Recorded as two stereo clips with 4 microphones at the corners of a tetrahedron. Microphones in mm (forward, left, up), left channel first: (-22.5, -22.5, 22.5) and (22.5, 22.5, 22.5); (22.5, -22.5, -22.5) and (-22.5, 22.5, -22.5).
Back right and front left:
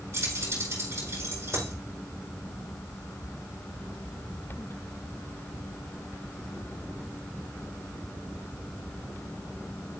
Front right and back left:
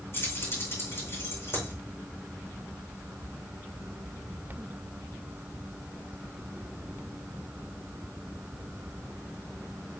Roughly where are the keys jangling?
Ahead.